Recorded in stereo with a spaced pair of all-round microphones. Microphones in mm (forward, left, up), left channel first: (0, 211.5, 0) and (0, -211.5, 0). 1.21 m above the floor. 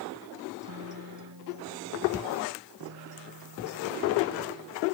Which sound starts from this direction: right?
A guitar, at 0.6 s.